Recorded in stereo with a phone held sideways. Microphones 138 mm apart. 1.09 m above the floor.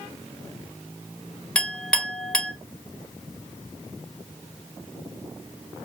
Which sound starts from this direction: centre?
A clink, at 1.6 s.